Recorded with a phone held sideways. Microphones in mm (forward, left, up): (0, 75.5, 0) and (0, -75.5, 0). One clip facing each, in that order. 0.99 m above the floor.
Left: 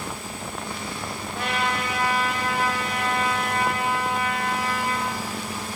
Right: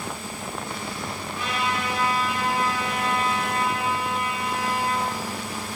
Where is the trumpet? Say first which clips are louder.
Left 1 dB; 60° left (ahead or behind), 2 m.